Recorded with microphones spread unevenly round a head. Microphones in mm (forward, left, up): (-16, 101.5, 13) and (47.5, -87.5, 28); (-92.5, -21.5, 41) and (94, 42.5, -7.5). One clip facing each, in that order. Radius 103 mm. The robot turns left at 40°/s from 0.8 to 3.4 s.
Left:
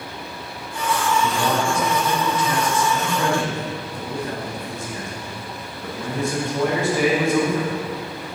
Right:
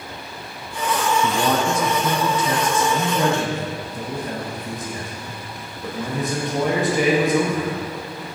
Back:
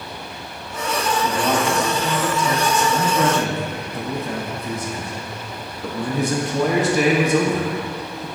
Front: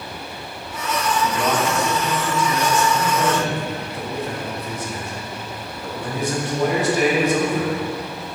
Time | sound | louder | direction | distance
1.2 | a man speaking | right 1 dB, back 1 dB | 60° right | 0.6 m